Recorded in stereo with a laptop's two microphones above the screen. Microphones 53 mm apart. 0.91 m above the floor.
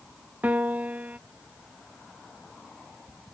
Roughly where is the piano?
Right.